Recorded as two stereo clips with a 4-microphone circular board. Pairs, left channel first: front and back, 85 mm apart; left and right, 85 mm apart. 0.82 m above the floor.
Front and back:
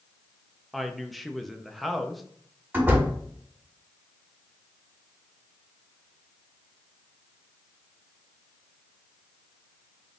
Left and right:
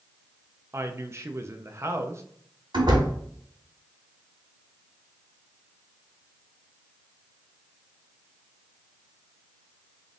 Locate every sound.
0.7 s a woman speaking: 90° right, 0.5 m
2.7 s a door slam: 110° right, 1.8 m